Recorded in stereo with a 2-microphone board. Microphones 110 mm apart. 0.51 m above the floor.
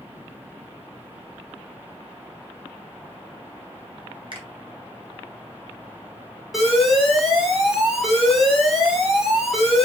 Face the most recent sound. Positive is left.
turn(degrees=-5)  # may be behind; listen again after turning